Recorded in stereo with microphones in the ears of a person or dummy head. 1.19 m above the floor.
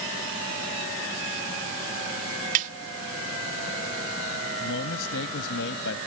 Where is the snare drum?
50° right (ahead or behind).